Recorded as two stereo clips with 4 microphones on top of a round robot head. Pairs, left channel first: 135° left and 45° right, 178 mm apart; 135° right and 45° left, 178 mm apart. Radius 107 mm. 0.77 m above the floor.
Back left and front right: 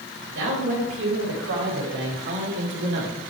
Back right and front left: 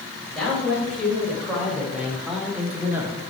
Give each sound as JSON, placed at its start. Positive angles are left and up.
{"t": 0.3, "sound": "a man speaking", "azimuth_deg": -45, "distance_m": 3.5}